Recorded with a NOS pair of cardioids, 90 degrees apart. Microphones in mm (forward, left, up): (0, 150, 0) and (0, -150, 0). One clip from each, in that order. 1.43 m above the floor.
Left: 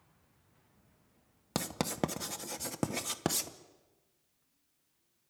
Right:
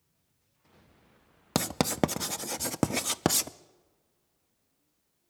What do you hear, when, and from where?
1.6 s writing: 30° right, 0.7 m